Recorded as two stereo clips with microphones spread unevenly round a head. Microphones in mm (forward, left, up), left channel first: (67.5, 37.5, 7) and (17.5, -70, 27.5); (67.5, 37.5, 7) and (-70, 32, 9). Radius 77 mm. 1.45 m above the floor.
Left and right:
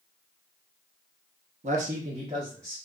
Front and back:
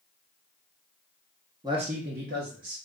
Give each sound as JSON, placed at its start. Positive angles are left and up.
{"t": 1.6, "sound": "a man speaking", "azimuth_deg": -110, "distance_m": 0.7}